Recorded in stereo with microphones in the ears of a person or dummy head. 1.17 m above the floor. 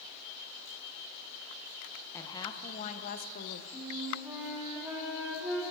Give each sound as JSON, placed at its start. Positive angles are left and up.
{"t": 2.1, "sound": "a woman speaking", "side_deg": 15, "distance_m": 1.1}
{"t": 3.7, "sound": "a flute", "side_deg": -15, "distance_m": 2.0}